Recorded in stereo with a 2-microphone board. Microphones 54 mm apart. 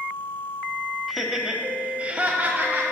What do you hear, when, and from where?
1.1 s laughter: centre (ahead or behind), 1.1 m; by 2.8 s 35° right (ahead or behind), 1.3 m